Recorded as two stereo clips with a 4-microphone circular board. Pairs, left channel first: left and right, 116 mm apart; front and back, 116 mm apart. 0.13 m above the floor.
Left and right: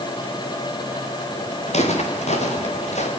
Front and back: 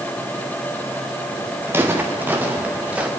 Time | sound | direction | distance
1.7 | footsteps | 110° left | 4.5 m